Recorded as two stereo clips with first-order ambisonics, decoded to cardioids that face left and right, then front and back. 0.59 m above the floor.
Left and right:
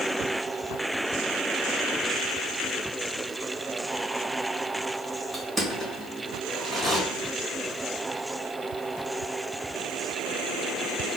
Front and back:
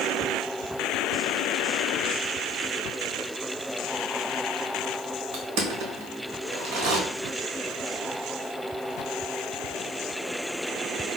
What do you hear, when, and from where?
5.3 s crushing: 170° right, 1.0 m